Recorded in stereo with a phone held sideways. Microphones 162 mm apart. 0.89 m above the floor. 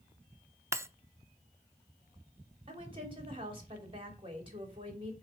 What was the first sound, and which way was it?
Breaking glass, 15° right (ahead or behind).